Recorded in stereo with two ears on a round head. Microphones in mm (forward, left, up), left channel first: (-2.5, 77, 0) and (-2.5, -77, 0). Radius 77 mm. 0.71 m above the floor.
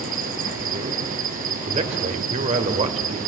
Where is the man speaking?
40° right (ahead or behind), 2.5 m.